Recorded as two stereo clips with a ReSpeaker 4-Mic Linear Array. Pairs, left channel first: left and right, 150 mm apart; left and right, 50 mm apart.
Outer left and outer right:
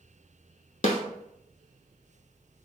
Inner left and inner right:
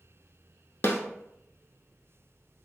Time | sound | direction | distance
0.8 | a snare drum | 55° left (ahead or behind) | 0.6 m